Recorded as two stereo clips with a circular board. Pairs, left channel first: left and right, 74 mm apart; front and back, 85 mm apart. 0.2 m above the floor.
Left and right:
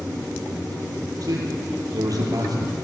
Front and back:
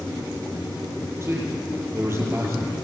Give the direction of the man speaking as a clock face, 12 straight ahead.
4 o'clock.